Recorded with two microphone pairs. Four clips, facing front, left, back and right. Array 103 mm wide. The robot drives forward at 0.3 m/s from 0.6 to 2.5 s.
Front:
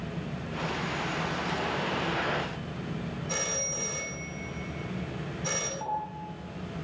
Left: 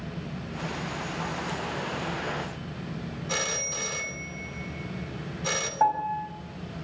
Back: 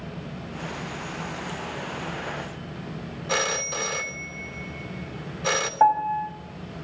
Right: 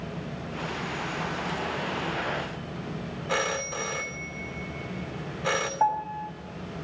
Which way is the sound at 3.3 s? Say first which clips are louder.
Right 5 dB, back 11 dB; 150° right.